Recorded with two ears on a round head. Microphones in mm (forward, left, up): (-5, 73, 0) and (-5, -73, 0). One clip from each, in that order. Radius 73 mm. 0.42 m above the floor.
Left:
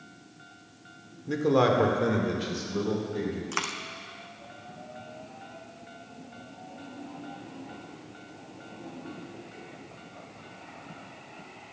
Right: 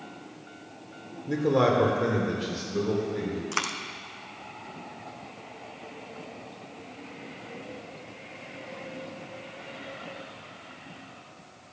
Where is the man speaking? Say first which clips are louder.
Even; 20° left (ahead or behind), 1.4 m; by 3.4 s 10° left (ahead or behind), 2.5 m.